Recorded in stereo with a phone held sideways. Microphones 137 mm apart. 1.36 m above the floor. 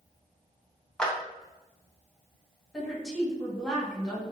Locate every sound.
1.0 s a clap: 5° left (ahead or behind), 0.8 m
2.7 s a woman speaking: centre (ahead or behind), 1.9 m